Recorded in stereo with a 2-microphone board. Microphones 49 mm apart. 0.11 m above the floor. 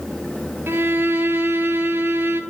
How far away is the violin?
About 0.8 m.